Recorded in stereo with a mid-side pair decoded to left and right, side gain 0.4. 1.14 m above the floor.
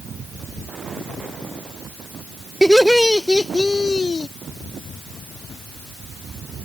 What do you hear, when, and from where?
2.6 s laughter: 5° right; by 4.3 s 45° left